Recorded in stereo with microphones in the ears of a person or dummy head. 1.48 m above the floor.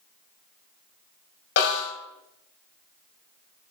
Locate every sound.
1.6 s a snare drum: 70° left (ahead or behind), 1.5 m